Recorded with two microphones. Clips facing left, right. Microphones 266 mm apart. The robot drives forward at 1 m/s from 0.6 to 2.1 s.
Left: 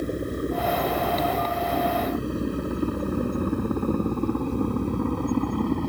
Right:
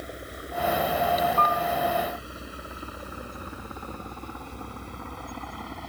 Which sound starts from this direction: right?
A piano, at 1.4 s.